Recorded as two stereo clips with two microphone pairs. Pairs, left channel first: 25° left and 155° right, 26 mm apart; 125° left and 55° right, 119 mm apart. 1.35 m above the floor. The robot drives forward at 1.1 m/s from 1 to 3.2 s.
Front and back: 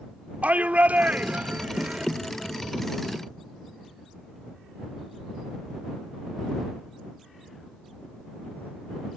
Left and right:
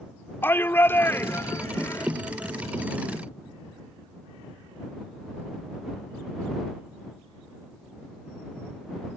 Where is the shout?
165° right; by 2.1 s 170° right.